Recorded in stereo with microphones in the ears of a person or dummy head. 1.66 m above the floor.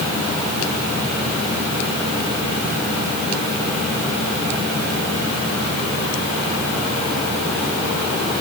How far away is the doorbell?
I don't hear a doorbell.